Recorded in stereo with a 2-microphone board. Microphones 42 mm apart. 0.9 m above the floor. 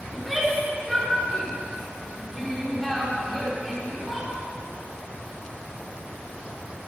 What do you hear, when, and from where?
0.1 s a shout: centre (ahead or behind), 3 m